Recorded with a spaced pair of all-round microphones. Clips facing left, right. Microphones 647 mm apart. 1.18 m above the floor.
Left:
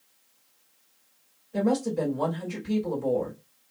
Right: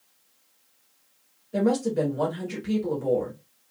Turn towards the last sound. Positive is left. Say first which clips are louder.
# right 2 dB
turn(degrees=-85)